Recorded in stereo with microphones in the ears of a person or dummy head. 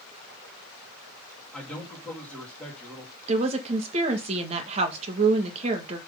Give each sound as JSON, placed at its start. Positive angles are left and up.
{"t": 1.5, "sound": "a man speaking", "side_deg": 5, "distance_m": 2.5}
{"t": 3.3, "sound": "a woman speaking", "side_deg": -35, "distance_m": 1.7}